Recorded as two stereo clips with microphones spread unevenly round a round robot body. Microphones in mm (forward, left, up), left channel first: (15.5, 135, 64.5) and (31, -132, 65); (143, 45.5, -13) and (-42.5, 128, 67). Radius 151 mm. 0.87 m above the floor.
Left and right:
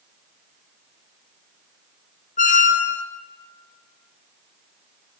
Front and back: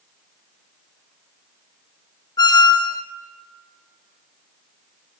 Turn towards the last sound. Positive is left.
turn(degrees=35)